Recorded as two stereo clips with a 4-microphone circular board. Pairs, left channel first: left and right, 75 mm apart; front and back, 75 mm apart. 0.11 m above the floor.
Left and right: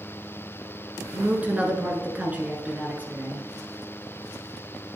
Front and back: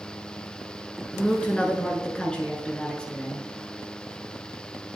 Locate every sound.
1.1 s a woman speaking: 60° right, 1.2 m